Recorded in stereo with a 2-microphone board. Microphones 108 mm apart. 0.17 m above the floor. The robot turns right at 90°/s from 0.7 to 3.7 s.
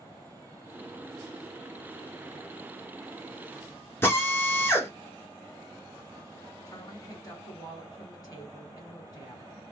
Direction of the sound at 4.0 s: 20° left (ahead or behind).